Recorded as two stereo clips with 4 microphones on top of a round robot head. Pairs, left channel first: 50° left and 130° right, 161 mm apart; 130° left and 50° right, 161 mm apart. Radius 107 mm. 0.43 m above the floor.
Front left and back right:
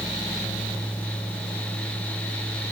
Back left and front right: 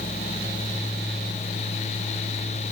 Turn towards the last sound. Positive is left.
No sound to turn to.